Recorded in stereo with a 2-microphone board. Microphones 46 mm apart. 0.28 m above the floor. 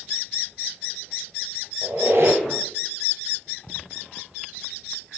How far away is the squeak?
About 0.9 m.